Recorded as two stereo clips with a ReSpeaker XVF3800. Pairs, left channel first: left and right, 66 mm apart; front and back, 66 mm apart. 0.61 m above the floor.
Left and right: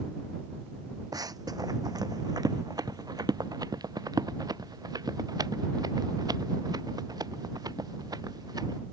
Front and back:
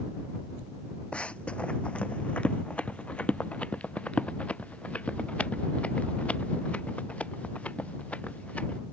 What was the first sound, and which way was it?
Running footsteps, 75° right.